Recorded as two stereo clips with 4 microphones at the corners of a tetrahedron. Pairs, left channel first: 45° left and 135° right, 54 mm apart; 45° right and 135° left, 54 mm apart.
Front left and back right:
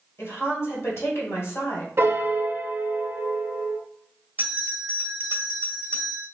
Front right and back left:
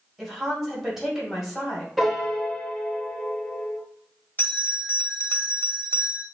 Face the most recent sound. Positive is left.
turn(degrees=-85)